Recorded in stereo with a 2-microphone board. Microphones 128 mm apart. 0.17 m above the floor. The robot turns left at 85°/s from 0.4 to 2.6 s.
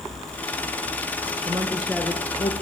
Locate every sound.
1.5 s a woman speaking: 140° right, 2.5 m; by 2.5 s 130° left, 2.5 m